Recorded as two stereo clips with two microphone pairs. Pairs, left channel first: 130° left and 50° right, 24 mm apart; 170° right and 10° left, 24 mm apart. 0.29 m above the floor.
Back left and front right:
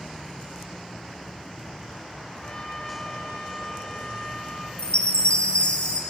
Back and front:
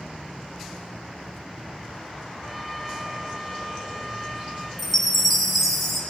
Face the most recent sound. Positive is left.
turn(degrees=105)